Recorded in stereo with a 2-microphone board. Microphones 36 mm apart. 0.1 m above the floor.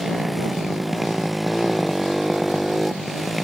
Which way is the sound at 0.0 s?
Centre (ahead or behind).